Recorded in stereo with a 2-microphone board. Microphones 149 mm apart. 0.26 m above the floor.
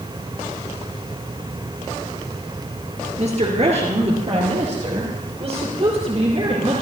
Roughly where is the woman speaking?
Right.